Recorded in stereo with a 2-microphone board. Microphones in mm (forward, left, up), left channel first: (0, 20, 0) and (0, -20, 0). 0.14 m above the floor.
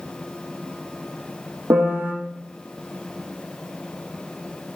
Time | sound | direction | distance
1.7 | a piano | 75° right (ahead or behind) | 4.5 m